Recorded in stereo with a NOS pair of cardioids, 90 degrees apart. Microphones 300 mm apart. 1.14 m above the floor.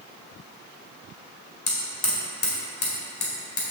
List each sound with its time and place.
1.7 s hammering: 50° left, 1.9 m